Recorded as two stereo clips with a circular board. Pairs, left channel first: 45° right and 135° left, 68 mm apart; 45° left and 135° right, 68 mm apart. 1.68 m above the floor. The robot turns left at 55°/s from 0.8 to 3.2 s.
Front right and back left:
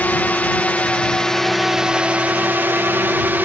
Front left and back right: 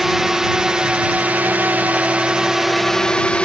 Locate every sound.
0.0 s a drone: 55° right; by 3.5 s 105° left